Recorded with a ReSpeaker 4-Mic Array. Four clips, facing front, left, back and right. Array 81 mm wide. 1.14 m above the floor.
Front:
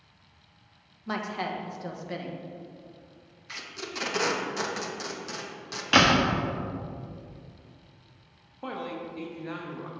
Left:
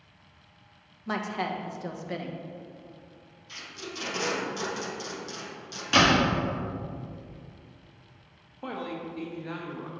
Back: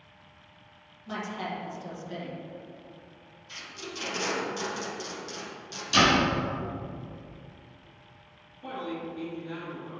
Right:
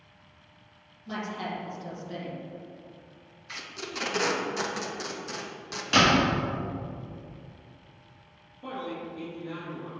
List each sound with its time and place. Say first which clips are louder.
1.1 s a woman speaking: left 3 dB, front 3 dB; 55° left, 0.9 m
3.5 s tape being pulled: right 2 dB, front 3 dB; 45° right, 0.9 m
5.9 s a door slam: even, front 1 dB; straight ahead, 1.2 m
8.6 s a man speaking: left 1 dB, even; 45° left, 1.3 m